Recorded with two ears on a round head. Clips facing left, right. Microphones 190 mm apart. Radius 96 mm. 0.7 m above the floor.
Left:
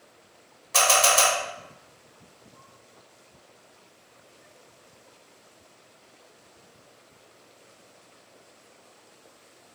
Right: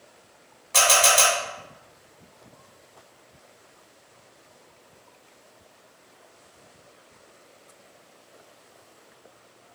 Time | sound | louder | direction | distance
0.7 | a camera shutter | right 1 dB | 5° left (ahead or behind) | 1.7 m